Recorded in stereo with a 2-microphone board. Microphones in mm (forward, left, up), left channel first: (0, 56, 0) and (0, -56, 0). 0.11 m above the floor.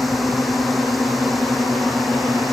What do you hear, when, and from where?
0.0 s a drone: centre (ahead or behind)